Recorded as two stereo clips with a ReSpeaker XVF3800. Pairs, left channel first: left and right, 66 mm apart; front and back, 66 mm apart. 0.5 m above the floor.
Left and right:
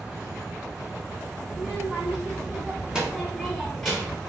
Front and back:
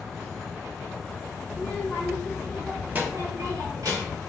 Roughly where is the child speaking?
Ahead.